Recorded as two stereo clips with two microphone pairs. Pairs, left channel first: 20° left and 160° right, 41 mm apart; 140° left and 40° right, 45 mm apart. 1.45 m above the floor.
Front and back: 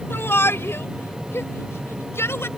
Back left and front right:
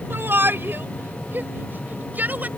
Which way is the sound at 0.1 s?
5° right.